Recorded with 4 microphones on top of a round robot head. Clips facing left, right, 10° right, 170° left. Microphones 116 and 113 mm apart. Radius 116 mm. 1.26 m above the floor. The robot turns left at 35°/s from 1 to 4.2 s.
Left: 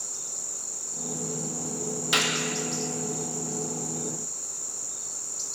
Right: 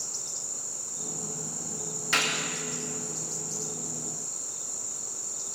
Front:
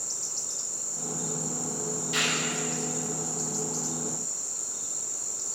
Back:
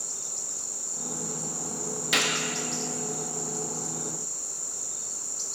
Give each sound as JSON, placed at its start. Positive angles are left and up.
{"t": 2.1, "sound": "a gunshot", "azimuth_deg": 165, "distance_m": 1.9}